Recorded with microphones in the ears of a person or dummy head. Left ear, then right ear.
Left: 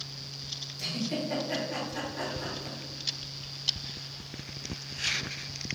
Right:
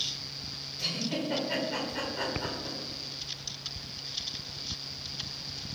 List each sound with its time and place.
0.8 s a giggle: 10° left (ahead or behind), 1.9 m